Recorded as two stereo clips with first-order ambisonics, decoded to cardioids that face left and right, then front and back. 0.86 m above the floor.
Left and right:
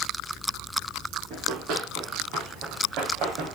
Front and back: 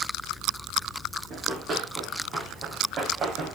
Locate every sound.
1.3 s running footsteps: 120° right, 4.5 m